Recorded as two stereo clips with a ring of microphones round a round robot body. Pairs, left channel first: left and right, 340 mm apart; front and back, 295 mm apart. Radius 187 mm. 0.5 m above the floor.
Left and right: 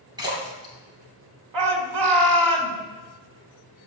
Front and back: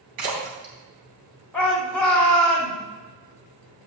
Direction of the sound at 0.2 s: 170° right.